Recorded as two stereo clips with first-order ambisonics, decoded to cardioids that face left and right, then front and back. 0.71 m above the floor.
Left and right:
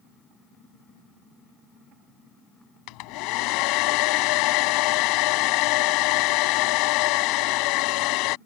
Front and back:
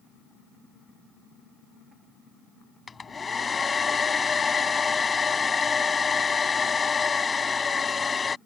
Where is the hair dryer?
70° left.